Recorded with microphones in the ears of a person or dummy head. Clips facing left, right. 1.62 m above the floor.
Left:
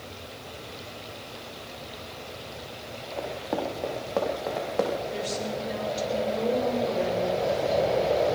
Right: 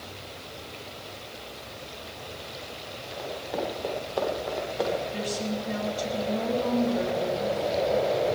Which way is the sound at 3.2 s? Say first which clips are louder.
Left 2 dB; 75° left (ahead or behind).